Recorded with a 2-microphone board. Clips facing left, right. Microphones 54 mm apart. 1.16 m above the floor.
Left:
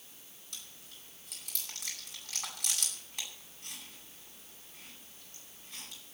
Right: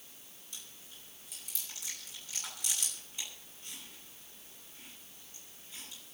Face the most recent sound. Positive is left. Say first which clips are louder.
# left 1 dB
turn(degrees=60)  # may be behind; listen again after turning